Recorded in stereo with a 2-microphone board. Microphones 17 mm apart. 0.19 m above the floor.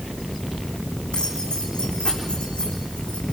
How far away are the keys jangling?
About 8.5 m.